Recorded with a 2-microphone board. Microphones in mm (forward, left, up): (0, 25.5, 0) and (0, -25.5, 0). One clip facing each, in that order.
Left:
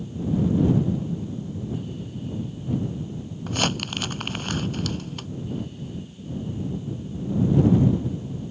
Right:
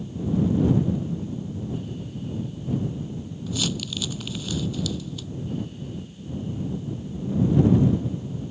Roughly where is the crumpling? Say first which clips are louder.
Left 3 dB; left.